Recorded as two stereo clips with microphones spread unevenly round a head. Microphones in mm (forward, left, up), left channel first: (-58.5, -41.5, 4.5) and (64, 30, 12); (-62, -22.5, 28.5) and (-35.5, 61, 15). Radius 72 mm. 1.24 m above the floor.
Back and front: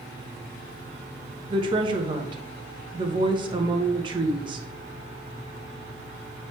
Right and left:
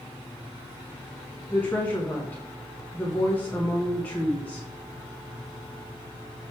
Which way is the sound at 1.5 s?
30° right.